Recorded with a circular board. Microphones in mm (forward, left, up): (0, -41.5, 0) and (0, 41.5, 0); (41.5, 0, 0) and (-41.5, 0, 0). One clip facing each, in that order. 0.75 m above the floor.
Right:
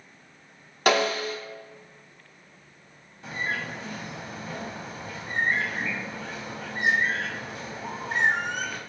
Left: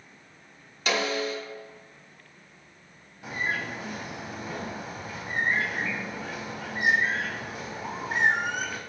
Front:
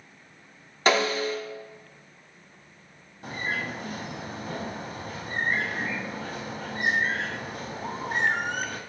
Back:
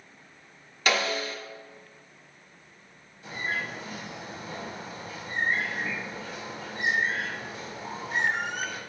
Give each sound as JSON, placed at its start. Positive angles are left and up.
{"t": 0.9, "sound": "a snare drum", "azimuth_deg": -55, "distance_m": 0.8}
{"t": 3.2, "sound": "a bird", "azimuth_deg": 10, "distance_m": 0.8}